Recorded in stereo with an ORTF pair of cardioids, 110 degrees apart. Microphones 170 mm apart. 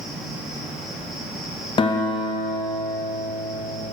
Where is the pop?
No pop in this recording.